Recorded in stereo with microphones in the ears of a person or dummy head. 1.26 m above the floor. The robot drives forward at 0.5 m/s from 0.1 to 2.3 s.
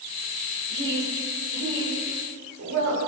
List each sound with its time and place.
0.7 s a woman speaking: 70° right (ahead or behind), 5.5 m; by 3.0 s 80° right, 5 m